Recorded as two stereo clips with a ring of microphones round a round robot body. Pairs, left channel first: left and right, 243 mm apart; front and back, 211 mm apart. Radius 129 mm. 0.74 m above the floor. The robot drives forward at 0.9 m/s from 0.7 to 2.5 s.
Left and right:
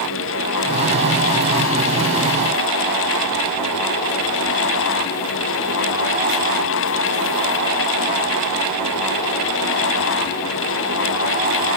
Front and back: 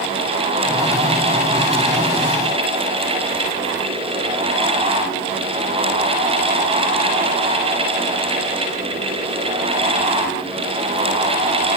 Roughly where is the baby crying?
I don't hear a baby crying.